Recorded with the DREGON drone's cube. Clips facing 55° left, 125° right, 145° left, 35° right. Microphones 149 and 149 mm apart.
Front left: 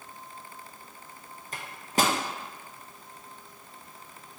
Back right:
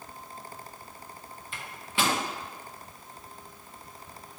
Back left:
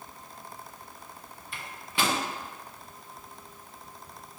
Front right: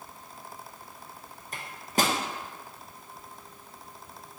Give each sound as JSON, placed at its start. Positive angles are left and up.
{"t": 1.5, "sound": "a microwave", "azimuth_deg": 10, "distance_m": 0.5}